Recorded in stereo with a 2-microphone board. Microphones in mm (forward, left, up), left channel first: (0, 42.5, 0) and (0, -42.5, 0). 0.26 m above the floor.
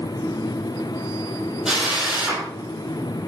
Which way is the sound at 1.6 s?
5° right (ahead or behind).